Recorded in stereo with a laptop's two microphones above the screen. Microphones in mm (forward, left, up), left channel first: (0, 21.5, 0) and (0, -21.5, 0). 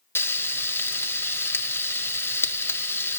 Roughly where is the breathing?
No breathing in this recording.